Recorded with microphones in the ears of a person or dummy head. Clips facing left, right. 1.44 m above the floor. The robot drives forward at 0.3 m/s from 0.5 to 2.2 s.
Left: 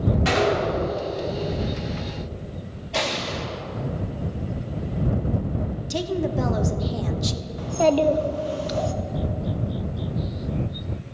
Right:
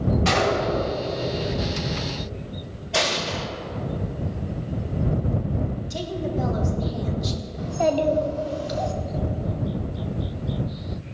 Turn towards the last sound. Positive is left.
turn(degrees=45)  # may be behind; listen again after turning